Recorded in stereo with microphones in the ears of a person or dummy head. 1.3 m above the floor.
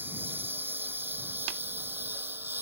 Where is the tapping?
75° right (ahead or behind).